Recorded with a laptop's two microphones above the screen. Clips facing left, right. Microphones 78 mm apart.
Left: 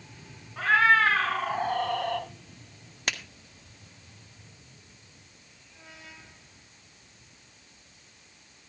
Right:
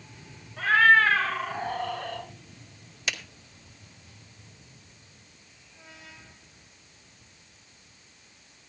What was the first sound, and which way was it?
A cat meowing, 75° left (ahead or behind).